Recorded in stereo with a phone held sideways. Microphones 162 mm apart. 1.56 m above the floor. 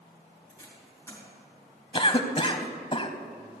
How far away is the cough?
About 0.6 m.